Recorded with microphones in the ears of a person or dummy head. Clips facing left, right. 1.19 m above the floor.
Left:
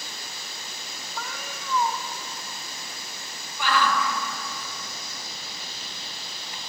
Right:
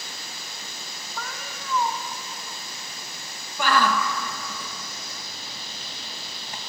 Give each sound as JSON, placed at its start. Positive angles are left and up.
{"t": 1.2, "sound": "a cat meowing", "side_deg": 5, "distance_m": 1.2}
{"t": 3.6, "sound": "a shout", "side_deg": -40, "distance_m": 1.4}